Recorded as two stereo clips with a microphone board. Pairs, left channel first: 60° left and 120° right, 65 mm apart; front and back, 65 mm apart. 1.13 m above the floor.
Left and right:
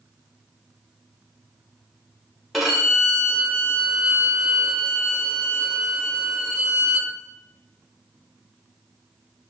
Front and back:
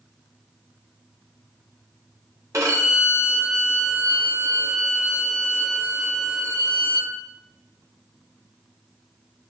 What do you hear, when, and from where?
2.5 s a violin: 150° left, 0.9 m